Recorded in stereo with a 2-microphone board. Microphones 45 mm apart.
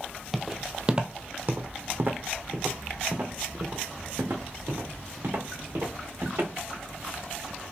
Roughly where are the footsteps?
Centre.